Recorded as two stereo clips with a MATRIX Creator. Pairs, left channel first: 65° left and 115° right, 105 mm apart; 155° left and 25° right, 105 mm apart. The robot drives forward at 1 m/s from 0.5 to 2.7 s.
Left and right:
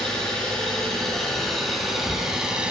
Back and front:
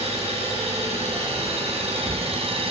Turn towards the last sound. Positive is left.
turn(degrees=-30)